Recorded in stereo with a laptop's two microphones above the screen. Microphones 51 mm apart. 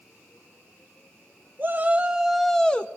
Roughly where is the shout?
Right.